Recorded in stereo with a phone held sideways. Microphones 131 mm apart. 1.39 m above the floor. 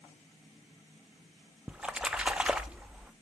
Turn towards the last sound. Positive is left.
turn(degrees=-10)  # may be behind; listen again after turning